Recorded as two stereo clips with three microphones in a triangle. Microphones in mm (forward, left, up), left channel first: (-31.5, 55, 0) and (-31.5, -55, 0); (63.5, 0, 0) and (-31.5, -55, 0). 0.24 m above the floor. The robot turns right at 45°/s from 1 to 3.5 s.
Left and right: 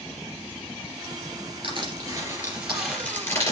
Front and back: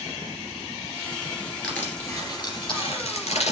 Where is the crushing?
50° right, 3 m; by 3.5 s 30° left, 3 m.